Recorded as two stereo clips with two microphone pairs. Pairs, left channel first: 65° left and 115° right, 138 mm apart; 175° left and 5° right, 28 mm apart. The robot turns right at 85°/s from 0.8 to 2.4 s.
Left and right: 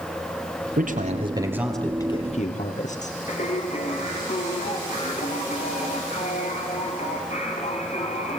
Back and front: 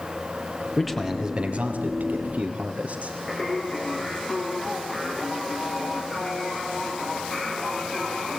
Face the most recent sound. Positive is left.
turn(degrees=100)